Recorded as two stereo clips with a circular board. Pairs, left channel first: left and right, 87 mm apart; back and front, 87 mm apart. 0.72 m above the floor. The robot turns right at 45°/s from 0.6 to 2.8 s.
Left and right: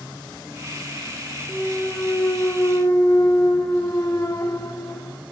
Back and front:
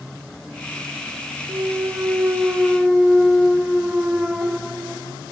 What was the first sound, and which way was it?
A clunk, 15° left.